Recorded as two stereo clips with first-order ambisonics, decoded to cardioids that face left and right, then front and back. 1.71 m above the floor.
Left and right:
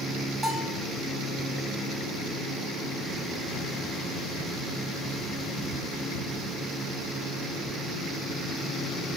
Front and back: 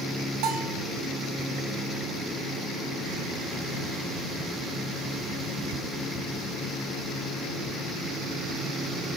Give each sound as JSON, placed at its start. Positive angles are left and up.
{"t": 0.4, "sound": "a bell", "azimuth_deg": -175, "distance_m": 1.7}